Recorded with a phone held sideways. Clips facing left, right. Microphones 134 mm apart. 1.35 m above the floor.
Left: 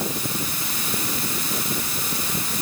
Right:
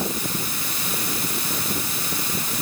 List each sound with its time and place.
Only background noise.